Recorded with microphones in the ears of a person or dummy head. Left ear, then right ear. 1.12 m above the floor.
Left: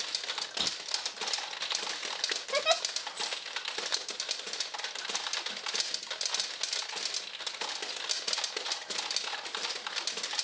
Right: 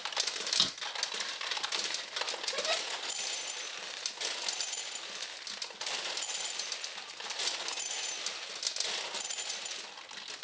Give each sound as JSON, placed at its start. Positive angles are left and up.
{"t": 0.6, "sound": "a drawer", "side_deg": -55, "distance_m": 1.8}
{"t": 2.5, "sound": "a giggle", "side_deg": 60, "distance_m": 0.7}